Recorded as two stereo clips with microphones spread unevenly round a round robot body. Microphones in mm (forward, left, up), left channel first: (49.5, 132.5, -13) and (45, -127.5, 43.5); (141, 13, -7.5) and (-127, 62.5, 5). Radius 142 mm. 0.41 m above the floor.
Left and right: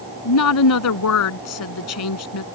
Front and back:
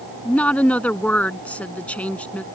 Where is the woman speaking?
75° left.